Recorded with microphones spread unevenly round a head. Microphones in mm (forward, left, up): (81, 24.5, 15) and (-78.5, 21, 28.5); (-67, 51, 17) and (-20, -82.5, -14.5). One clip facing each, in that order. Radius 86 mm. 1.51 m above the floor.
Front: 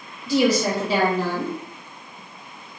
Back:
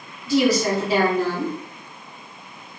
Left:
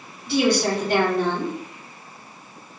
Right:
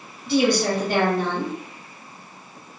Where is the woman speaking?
15° right, 2 m.